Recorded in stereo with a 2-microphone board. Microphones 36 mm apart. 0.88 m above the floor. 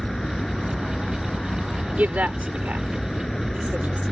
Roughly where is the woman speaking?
Right.